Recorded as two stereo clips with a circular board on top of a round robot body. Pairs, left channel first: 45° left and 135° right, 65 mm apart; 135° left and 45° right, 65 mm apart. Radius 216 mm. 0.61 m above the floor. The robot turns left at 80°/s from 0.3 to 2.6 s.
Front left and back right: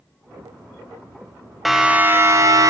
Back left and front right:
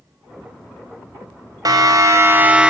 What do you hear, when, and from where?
1.6 s a siren: 45° right, 3.5 m; by 2.7 s 115° right, 2.5 m